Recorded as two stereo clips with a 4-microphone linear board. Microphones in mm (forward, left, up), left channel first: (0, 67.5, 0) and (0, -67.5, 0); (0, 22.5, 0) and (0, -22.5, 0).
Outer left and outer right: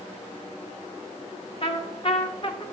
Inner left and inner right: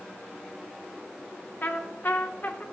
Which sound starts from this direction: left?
A trumpet, at 1.6 s.